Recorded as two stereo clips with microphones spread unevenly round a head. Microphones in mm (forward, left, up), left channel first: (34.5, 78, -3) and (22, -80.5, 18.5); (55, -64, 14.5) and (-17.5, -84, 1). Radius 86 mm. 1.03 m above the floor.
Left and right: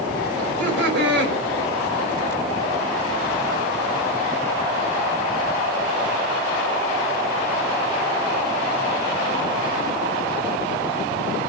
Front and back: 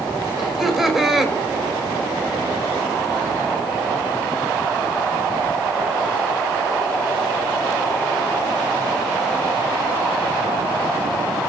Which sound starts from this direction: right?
Laughter, at 0.4 s.